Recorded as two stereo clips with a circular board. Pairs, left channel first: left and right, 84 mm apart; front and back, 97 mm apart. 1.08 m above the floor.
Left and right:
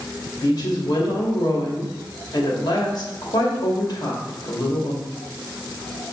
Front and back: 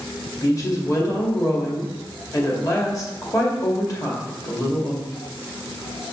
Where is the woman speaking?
55° left, 2.0 m.